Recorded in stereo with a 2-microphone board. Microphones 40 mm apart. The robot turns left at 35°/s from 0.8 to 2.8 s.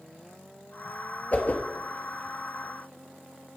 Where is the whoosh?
35° left (ahead or behind), 1.1 m; by 1.6 s 45° left (ahead or behind), 1.1 m.